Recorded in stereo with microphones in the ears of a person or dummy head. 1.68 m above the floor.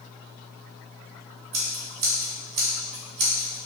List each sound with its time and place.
1.5 s scissors: 55° right (ahead or behind), 0.8 m